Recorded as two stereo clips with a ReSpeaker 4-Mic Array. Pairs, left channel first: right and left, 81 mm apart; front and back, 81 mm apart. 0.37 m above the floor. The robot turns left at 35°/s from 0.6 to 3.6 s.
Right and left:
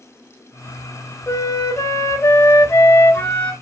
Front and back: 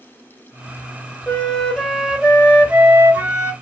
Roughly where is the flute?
Right.